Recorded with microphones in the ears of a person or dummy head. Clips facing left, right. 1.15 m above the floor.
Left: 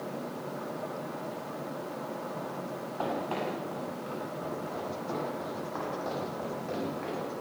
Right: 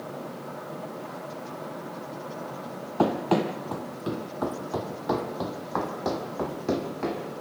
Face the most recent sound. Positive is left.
turn(degrees=-65)  # may be behind; listen again after turning